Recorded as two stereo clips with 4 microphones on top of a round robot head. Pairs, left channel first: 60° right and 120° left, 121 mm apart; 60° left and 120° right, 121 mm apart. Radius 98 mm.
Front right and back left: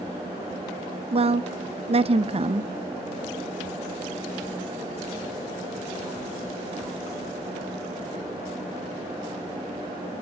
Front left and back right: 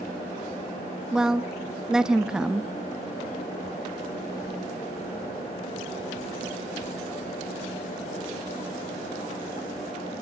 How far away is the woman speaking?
About 0.8 m.